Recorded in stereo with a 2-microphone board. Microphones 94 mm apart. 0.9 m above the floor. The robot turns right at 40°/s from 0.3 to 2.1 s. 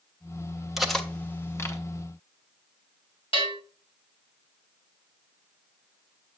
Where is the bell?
85° left, 3.5 m.